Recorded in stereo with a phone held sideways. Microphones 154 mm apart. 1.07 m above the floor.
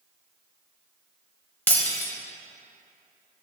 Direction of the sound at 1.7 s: 10° left (ahead or behind).